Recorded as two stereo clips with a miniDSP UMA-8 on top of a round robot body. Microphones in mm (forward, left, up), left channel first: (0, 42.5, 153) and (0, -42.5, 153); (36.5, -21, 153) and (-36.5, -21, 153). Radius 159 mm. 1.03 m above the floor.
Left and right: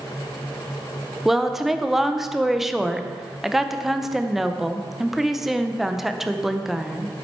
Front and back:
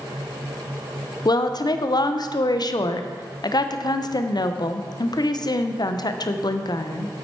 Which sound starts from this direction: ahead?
A woman speaking, at 1.2 s.